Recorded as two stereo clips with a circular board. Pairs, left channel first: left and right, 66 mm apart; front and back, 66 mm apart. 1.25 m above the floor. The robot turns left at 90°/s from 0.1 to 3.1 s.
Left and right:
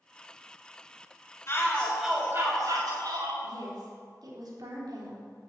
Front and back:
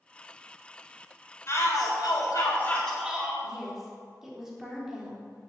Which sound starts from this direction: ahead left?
A shout, at 1.5 s.